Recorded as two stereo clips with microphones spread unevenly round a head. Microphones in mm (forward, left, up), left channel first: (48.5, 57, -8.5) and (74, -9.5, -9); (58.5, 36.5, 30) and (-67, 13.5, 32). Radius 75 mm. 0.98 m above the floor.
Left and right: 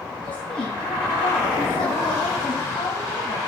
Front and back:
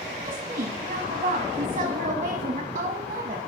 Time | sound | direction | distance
0.2 | a woman speaking | 150° left | 1.1 m